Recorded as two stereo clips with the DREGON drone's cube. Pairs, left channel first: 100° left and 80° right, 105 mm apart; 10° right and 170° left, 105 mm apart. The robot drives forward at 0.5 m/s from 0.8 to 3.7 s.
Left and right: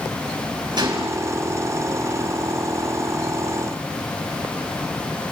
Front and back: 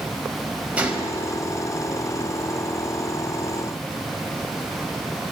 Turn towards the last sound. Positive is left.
turn(degrees=-135)